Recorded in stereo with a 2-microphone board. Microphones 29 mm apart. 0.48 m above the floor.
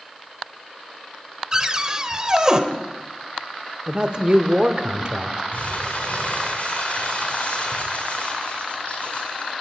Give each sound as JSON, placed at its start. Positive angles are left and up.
{"t": 1.5, "sound": "a cupboard door", "side_deg": -25, "distance_m": 1.2}
{"t": 3.9, "sound": "a man speaking", "side_deg": -35, "distance_m": 1.3}
{"t": 5.5, "sound": "crumpling", "side_deg": 75, "distance_m": 5.5}